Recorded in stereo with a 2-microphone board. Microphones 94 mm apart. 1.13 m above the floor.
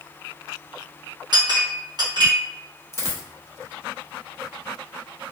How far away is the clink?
About 1.1 m.